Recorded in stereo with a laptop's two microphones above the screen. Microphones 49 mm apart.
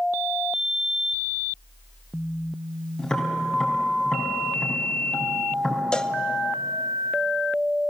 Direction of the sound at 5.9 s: 15° left (ahead or behind).